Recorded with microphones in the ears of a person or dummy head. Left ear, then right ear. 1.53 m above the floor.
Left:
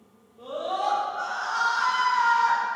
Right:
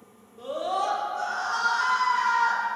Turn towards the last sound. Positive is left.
turn(degrees=-55)  # may be behind; listen again after turning